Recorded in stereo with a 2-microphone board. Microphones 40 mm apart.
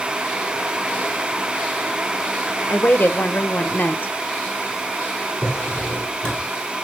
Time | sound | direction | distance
2.7 | a woman speaking | 50° left (ahead or behind) | 1.0 m
5.4 | a drawer | 25° left (ahead or behind) | 8 m